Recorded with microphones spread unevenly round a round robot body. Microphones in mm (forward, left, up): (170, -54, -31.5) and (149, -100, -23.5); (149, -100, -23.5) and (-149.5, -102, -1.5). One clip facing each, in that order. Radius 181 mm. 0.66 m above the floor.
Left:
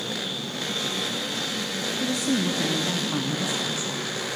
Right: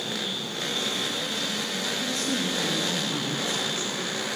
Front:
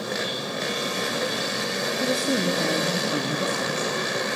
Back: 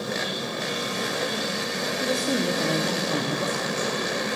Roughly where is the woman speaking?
Left.